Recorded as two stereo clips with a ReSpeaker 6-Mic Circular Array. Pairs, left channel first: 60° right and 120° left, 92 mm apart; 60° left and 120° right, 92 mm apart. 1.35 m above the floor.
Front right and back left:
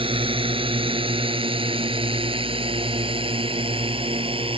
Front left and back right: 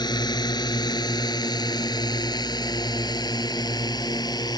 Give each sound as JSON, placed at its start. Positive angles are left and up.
{"t": 0.0, "sound": "a drone", "azimuth_deg": 100}